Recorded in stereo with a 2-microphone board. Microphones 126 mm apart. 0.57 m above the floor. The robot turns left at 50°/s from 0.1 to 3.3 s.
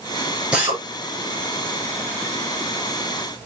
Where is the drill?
10° right (ahead or behind), 6 m; by 0.8 s 25° right (ahead or behind), 6 m.